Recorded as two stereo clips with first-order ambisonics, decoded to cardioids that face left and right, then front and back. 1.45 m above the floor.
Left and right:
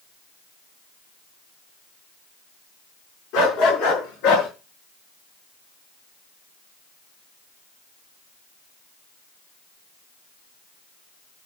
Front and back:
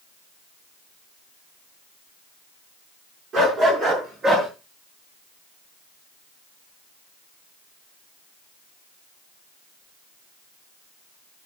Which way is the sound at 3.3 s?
115° left.